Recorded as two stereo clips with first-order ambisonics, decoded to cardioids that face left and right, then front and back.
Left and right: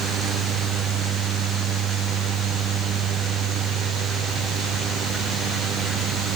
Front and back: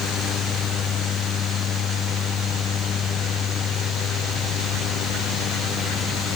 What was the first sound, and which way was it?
Only background noise.